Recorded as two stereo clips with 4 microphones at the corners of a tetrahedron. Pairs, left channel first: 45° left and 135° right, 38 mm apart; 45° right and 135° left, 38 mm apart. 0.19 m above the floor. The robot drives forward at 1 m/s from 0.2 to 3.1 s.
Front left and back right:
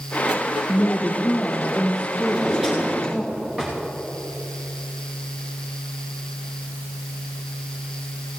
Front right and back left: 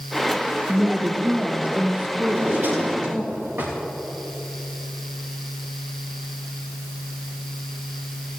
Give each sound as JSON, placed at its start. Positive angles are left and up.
{"t": 0.7, "sound": "a woman speaking", "azimuth_deg": 60, "distance_m": 3.0}
{"t": 2.2, "sound": "a drawer", "azimuth_deg": 145, "distance_m": 6.5}